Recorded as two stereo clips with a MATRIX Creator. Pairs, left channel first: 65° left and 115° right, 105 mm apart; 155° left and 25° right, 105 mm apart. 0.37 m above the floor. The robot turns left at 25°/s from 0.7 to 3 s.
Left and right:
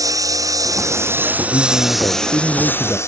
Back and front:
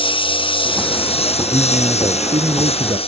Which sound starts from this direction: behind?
A lawn mower, at 0.0 s.